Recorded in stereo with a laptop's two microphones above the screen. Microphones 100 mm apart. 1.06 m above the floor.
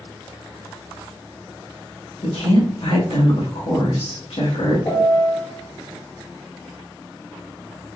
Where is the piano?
40° left (ahead or behind), 0.8 m.